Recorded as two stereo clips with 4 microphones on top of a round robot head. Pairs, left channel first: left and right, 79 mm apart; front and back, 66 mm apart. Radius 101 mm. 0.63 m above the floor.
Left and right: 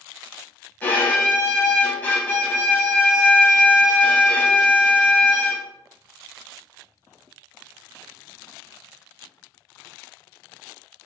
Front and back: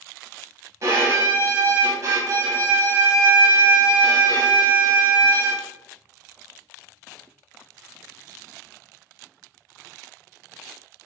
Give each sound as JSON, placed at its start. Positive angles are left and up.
{"t": 0.8, "sound": "a violin", "azimuth_deg": 150, "distance_m": 0.5}